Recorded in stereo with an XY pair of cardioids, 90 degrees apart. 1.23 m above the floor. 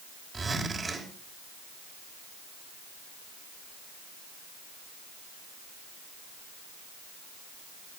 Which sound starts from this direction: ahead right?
A zipper, at 0.3 s.